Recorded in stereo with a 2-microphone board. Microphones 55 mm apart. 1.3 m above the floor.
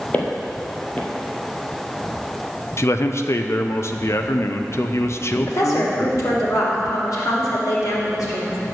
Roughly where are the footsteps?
Left.